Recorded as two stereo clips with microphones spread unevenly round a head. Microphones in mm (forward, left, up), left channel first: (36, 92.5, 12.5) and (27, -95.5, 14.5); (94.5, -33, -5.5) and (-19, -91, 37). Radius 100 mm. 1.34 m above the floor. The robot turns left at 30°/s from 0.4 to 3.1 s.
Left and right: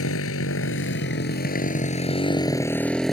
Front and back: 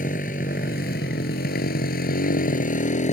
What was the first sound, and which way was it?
A motorcycle, 80° left.